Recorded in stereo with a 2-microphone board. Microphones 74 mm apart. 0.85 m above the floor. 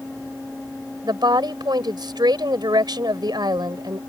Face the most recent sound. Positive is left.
turn(degrees=-75)  # may be behind; listen again after turning